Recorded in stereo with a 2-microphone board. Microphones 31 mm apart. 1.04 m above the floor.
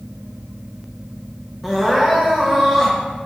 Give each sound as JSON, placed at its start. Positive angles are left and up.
{"t": 1.6, "sound": "crying", "side_deg": -10, "distance_m": 0.8}